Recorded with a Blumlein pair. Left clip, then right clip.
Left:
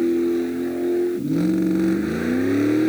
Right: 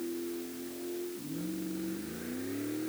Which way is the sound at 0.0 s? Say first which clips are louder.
Left 18 dB; 40° left.